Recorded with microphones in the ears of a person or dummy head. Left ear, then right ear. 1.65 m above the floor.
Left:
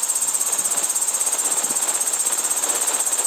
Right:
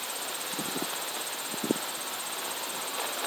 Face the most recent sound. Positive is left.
turn(degrees=60)  # may be behind; listen again after turning